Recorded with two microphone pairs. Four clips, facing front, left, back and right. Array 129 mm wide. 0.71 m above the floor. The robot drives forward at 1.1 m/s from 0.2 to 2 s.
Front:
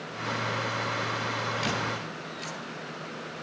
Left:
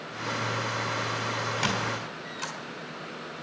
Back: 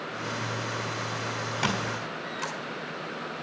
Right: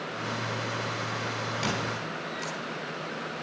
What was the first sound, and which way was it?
A squeak, 165° left.